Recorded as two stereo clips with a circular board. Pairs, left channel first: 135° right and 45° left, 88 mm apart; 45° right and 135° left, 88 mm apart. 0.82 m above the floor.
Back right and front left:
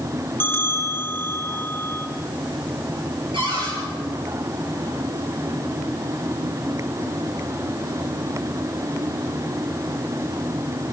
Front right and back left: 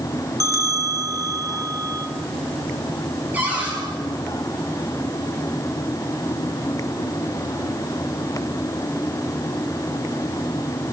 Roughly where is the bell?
Behind.